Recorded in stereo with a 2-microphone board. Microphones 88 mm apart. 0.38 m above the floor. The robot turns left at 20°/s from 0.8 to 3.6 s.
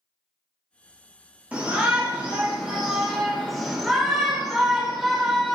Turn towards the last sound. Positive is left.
turn(degrees=0)  # may be behind; listen again after turning